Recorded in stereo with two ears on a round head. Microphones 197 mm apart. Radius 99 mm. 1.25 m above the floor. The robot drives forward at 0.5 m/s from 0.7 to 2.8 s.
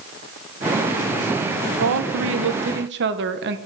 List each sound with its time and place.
1.8 s a woman speaking: 65° right (ahead or behind), 0.9 m; by 3.6 s 55° right (ahead or behind), 1.0 m